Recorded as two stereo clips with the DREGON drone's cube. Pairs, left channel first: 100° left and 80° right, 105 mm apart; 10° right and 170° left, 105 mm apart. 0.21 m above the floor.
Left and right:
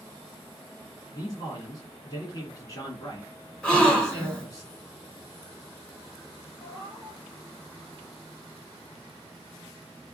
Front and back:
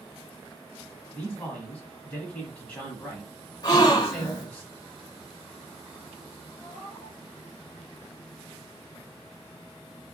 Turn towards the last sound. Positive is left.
turn(degrees=55)